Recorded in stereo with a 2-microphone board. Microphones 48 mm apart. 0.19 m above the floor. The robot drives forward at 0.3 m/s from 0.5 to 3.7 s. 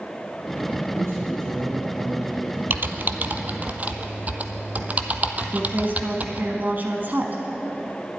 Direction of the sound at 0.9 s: 70° right (ahead or behind).